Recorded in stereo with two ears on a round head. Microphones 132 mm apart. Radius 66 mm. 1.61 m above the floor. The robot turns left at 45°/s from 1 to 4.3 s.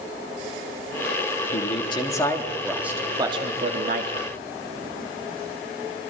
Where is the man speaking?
50° left, 3.5 m; by 4.3 s 75° right, 3.5 m.